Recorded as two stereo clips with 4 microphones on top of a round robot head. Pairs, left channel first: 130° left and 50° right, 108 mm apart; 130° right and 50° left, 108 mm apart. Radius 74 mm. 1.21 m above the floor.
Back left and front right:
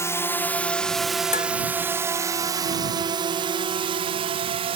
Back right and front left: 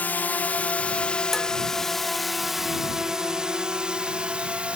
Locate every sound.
0.0 s a drone: 170° left; by 4.8 s 25° right
1.3 s dishes clattering: 140° left